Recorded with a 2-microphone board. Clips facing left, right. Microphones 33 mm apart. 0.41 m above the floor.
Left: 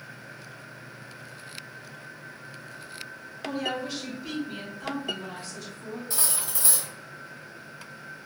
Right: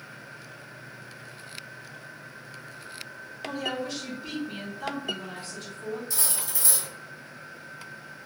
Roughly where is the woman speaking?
Left.